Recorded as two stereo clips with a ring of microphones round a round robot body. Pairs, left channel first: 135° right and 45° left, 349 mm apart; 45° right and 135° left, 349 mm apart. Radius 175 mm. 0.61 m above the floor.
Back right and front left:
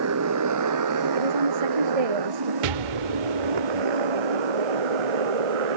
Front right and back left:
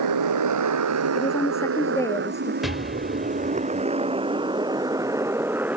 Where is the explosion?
45° left.